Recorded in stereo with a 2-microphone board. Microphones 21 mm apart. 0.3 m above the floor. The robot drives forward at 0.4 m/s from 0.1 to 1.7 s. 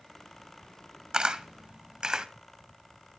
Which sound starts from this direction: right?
A camera shutter, at 1.1 s.